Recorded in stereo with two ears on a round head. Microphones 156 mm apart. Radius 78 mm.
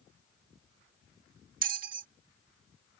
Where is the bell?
50° right (ahead or behind).